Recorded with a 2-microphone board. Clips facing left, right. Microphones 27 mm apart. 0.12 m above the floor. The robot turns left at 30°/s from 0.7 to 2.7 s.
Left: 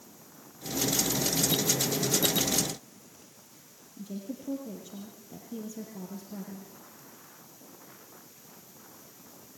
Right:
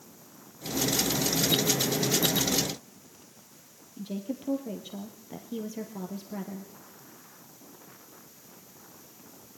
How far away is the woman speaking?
About 3.5 m.